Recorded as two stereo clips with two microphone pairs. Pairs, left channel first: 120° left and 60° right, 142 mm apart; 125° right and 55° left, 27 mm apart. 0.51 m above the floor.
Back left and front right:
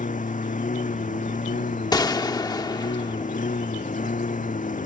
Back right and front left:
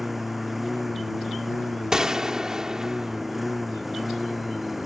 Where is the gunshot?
90° left.